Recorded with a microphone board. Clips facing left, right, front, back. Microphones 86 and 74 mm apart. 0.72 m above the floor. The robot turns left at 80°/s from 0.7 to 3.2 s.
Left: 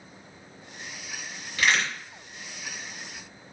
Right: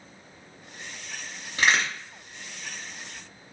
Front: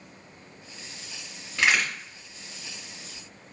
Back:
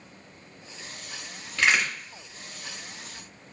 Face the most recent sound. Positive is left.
turn(degrees=150)